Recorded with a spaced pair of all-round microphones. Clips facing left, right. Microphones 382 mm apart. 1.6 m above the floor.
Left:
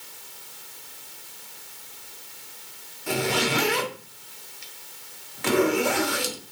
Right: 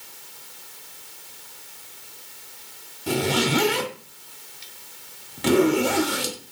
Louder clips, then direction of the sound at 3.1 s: Right 3 dB; 50° right (ahead or behind).